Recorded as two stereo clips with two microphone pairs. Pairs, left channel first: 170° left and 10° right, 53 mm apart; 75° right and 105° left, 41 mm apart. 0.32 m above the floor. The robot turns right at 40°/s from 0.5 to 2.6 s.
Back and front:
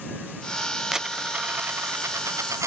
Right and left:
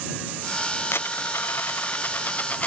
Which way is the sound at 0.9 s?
90° right.